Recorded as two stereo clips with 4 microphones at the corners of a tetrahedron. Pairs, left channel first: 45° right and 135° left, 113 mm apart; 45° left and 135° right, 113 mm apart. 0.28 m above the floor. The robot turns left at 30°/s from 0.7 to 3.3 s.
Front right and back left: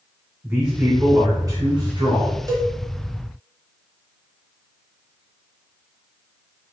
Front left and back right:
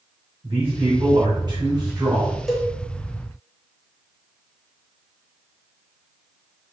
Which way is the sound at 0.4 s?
150° right.